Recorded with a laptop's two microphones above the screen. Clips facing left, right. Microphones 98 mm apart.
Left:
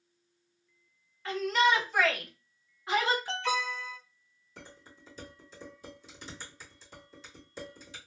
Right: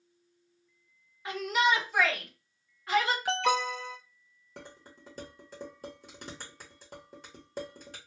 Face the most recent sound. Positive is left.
turn(degrees=-55)  # may be behind; listen again after turning